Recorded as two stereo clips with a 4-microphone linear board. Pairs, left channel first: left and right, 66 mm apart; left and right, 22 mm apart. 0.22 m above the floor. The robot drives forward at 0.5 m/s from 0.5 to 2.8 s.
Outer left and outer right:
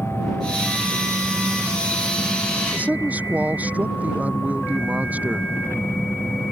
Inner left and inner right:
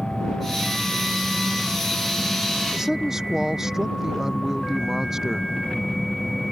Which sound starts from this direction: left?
An engine running, at 0.0 s.